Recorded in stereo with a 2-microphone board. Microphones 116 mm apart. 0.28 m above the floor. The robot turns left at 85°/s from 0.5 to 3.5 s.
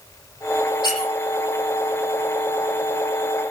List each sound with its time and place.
0.8 s a squeak: 40° left (ahead or behind), 8.5 m; by 1.1 s 65° left (ahead or behind), 8.5 m